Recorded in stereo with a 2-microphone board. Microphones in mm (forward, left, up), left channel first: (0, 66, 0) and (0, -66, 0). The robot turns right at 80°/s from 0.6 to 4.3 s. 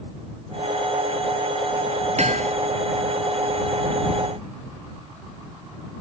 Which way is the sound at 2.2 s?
60° right (ahead or behind).